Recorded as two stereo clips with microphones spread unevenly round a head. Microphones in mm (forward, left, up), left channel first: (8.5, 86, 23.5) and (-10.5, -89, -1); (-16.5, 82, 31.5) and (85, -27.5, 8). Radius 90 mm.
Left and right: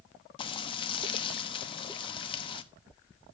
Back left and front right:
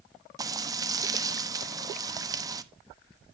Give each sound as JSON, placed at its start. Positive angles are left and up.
{"t": 0.4, "sound": "frying", "azimuth_deg": 20, "distance_m": 1.1}